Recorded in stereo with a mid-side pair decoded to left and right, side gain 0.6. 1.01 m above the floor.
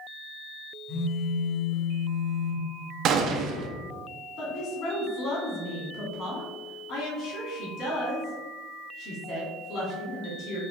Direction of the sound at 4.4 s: 55° left.